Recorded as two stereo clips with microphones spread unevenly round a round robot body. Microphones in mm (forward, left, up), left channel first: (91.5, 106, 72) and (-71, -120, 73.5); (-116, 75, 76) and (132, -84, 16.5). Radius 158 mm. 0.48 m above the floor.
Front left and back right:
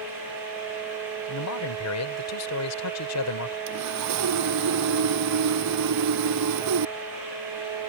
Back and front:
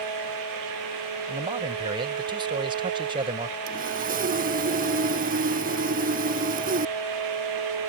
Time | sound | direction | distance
1.3 | a man speaking | 35° left | ?
3.7 | sawing | 95° right | ?